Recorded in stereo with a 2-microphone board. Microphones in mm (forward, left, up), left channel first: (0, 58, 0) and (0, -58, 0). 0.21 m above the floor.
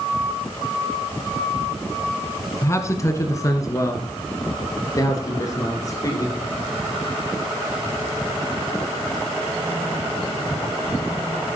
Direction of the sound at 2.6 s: 25° left (ahead or behind).